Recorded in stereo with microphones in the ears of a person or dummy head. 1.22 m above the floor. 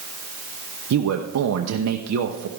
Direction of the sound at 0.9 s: 85° right.